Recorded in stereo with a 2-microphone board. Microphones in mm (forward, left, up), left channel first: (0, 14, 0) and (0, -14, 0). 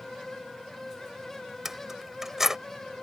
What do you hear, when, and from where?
1.6 s keys jangling: 10° right (ahead or behind)